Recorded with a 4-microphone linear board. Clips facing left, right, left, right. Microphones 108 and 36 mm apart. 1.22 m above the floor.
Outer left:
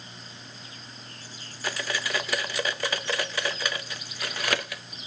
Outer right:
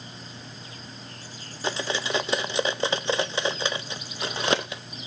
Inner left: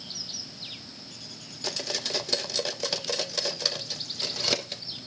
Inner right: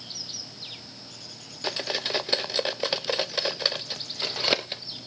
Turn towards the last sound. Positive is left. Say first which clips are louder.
# outer right 3 dB, inner right 3 dB
turn(degrees=-25)  # may be behind; listen again after turning